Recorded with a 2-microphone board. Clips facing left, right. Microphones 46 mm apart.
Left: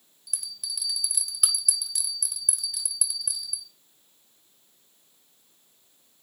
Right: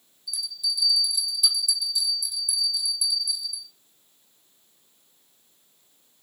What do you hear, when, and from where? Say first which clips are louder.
0.3 s a bell: right 8 dB; 60° left (ahead or behind), 3.5 m